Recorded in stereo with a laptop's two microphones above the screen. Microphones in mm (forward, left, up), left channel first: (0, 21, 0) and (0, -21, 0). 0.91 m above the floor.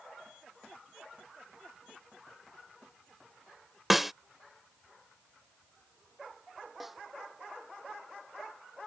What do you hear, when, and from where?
3.9 s a snare drum: 5° right (ahead or behind)
6.8 s a snare drum: 5° right (ahead or behind)